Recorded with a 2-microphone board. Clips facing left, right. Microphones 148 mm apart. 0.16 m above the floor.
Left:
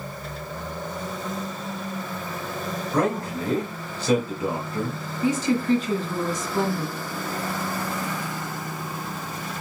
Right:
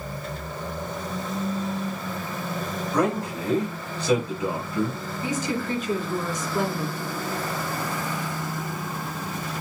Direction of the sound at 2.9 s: 30° left (ahead or behind).